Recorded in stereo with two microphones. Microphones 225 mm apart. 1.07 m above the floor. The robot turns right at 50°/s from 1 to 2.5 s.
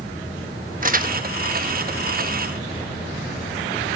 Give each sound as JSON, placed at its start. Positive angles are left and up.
{"t": 0.8, "sound": "crumpling", "side_deg": -40, "distance_m": 1.1}